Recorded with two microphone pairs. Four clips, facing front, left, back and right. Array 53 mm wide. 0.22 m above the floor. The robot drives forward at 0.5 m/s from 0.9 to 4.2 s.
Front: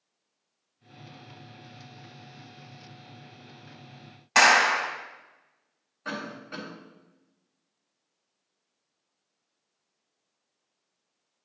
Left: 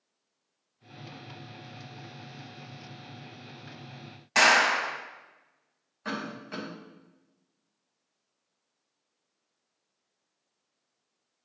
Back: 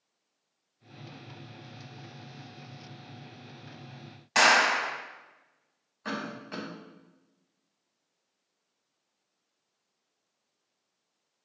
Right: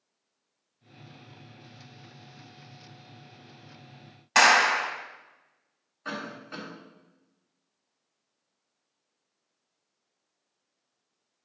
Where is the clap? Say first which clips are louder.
Right 2 dB, front 3 dB; 45° right, 0.8 m.